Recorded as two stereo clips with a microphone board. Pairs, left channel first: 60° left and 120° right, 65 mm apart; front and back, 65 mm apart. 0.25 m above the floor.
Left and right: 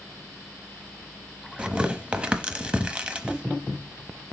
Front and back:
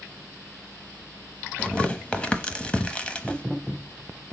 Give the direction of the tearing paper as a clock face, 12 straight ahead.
2 o'clock.